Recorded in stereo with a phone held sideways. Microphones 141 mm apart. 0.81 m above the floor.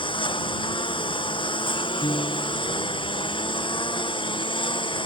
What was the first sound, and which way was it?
A lawn mower, 35° left (ahead or behind).